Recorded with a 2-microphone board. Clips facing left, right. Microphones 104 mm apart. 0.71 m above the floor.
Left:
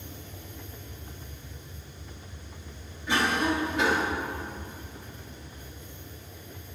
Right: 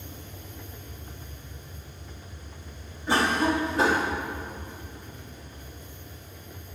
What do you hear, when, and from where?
3.1 s a cough: 35° right (ahead or behind), 1.0 m